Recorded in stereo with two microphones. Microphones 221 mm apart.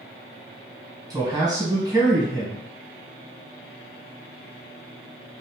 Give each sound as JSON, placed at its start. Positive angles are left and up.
{"t": 1.1, "sound": "a man speaking", "side_deg": -20, "distance_m": 1.3}